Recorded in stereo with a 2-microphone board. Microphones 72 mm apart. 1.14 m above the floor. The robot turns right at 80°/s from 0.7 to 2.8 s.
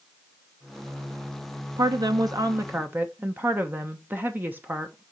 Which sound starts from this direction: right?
A woman speaking, at 1.8 s.